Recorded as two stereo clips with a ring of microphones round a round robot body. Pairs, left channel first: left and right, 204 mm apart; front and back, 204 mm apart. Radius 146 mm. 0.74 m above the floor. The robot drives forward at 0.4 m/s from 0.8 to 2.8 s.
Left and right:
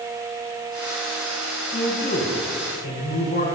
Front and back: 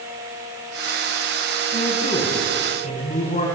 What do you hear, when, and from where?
1.7 s a man speaking: 50° left, 10 m